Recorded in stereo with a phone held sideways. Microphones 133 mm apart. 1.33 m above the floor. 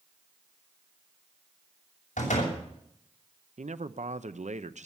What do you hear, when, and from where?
2.2 s a door slam: 85° left, 6.5 m
3.6 s a man speaking: 70° right (ahead or behind), 0.7 m